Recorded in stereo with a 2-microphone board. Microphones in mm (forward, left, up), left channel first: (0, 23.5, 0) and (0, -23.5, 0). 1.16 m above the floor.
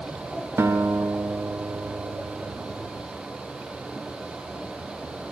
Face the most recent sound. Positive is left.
turn(degrees=-70)  # may be behind; listen again after turning